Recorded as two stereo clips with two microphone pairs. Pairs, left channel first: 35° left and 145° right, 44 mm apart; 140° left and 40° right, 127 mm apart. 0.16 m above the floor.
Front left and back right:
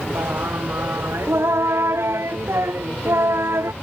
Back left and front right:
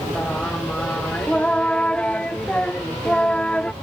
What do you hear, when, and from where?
0.1 s singing: 140° right